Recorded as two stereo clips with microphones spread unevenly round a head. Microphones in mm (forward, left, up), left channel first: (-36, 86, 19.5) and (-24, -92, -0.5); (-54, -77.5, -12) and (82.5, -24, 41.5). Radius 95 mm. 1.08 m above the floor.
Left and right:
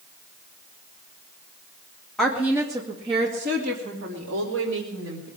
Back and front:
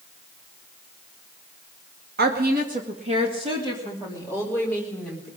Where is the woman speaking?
5° left, 2 m; by 5.3 s 65° right, 4 m.